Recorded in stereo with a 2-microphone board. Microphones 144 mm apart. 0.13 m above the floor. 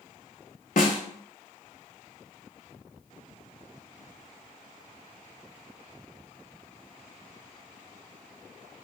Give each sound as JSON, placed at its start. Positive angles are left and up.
{"t": 0.8, "sound": "a snare drum", "side_deg": 65, "distance_m": 0.5}